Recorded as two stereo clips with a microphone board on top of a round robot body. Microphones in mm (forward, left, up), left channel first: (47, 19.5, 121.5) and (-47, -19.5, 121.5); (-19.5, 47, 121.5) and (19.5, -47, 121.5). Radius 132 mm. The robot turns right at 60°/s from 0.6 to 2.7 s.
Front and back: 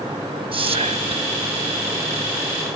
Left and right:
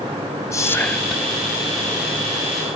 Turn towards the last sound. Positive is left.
turn(degrees=-60)